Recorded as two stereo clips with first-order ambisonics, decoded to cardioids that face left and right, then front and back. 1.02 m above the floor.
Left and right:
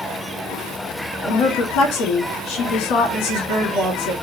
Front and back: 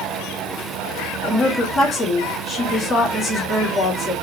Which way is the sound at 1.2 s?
70° left.